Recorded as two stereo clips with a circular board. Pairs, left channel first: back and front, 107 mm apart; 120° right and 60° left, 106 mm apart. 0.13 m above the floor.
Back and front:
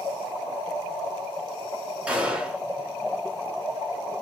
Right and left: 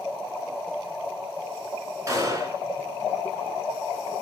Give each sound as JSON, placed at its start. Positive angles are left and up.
{"t": 2.1, "sound": "a gunshot", "azimuth_deg": 65, "distance_m": 1.4}